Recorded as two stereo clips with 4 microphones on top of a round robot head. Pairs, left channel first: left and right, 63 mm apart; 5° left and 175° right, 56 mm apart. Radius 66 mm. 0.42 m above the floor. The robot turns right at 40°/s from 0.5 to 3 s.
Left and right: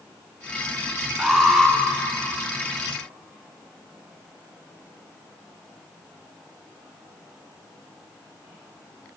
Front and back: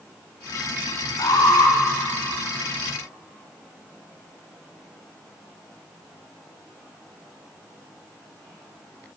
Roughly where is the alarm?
Ahead.